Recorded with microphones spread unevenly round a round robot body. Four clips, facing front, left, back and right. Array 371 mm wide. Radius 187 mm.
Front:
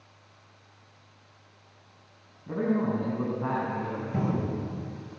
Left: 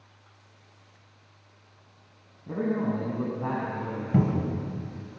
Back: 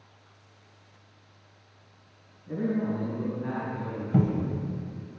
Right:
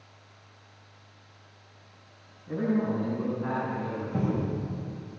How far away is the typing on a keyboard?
I don't hear typing on a keyboard.